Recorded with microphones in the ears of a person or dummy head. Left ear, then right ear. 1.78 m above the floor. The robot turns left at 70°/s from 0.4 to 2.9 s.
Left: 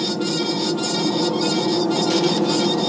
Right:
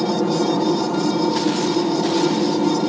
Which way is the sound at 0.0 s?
145° right.